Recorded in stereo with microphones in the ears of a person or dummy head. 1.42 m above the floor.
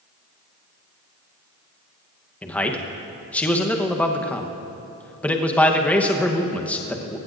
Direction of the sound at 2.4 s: 5° left (ahead or behind).